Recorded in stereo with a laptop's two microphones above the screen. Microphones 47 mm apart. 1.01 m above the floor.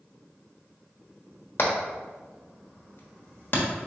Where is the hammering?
45° left (ahead or behind), 1.2 m.